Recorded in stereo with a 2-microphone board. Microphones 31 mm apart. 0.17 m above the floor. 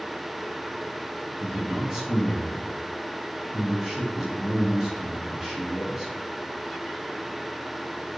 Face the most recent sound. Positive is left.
turn(degrees=-20)  # may be behind; listen again after turning